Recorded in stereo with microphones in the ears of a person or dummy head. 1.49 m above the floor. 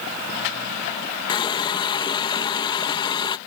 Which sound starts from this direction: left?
A running tap, at 1.3 s.